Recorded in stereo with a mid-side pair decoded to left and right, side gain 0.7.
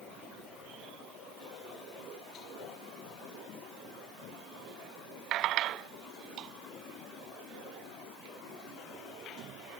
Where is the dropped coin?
No dropped coin in this recording.